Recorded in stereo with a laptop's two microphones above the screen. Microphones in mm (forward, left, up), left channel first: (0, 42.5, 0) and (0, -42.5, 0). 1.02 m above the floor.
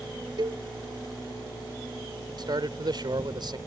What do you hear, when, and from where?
0.4 s a cowbell: 60° right (ahead or behind)
2.4 s a man speaking: 55° right (ahead or behind)